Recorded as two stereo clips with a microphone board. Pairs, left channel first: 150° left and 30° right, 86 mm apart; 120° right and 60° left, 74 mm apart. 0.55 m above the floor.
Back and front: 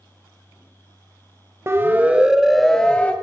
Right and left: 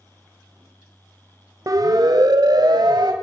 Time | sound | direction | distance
1.7 | a siren | 25° left | 2 m